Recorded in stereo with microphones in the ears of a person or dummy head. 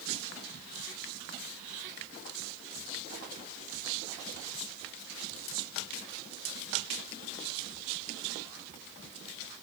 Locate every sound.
Only background noise.